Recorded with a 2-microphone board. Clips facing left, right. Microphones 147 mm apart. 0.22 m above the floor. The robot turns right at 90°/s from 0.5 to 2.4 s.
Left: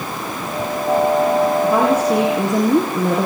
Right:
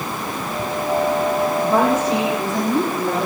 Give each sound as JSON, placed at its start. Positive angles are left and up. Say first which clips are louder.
{"t": 1.6, "sound": "a woman speaking", "louder": "left 2 dB", "azimuth_deg": 0, "distance_m": 6.0}